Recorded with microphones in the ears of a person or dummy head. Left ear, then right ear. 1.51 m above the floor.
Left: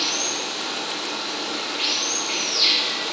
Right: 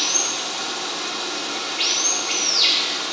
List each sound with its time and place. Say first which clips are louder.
0.0 s running water: right 2 dB; centre (ahead or behind), 1.2 m